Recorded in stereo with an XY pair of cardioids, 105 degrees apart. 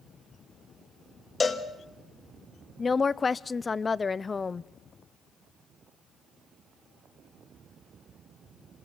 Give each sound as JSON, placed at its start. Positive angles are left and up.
{"t": 1.4, "sound": "a cowbell", "azimuth_deg": 30, "distance_m": 1.5}
{"t": 2.8, "sound": "a woman speaking", "azimuth_deg": 30, "distance_m": 0.6}